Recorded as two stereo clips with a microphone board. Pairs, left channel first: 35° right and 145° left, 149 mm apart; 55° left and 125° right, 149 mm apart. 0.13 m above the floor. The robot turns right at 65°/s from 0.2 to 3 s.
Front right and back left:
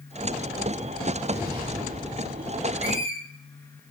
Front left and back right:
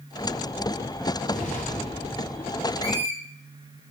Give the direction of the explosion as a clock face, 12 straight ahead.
10 o'clock.